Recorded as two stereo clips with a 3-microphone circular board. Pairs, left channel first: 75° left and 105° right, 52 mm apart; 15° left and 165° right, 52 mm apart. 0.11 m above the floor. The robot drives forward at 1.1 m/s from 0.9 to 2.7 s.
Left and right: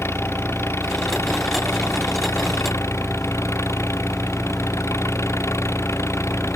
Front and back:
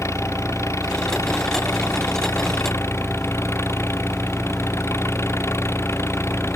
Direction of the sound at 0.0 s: 40° left.